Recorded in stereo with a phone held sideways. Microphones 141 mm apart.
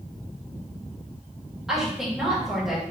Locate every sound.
1.7 s a woman speaking: 5° right (ahead or behind), 1.9 m